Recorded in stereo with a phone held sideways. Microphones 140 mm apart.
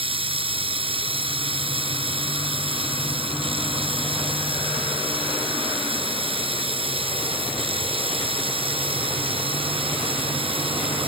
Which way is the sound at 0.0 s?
40° right (ahead or behind).